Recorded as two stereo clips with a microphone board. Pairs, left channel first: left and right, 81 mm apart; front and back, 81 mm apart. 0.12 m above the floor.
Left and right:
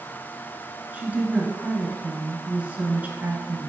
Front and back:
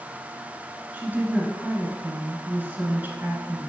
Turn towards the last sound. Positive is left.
turn(degrees=-140)